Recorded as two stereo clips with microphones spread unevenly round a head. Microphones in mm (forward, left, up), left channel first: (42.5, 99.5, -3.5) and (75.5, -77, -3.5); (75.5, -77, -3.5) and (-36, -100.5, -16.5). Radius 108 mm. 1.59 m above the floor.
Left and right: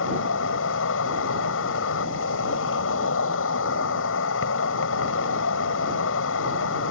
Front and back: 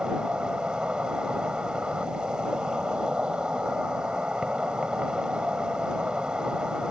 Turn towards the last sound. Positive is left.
turn(degrees=105)